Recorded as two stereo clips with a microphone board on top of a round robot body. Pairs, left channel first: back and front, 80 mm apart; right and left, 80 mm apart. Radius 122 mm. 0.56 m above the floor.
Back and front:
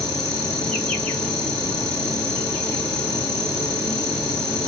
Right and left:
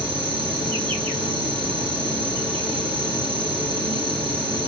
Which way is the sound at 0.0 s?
100° left.